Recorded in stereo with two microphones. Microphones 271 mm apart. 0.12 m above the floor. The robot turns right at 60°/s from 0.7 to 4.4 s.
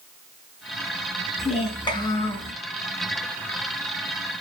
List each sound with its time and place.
1.4 s a child speaking: 25° left (ahead or behind), 1.1 m; by 2.5 s centre (ahead or behind), 1.1 m